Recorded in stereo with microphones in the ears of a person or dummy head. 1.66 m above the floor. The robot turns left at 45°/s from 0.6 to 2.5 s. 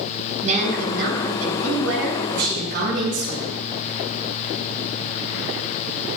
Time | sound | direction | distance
0.4 | a woman speaking | 40° right | 8.5 m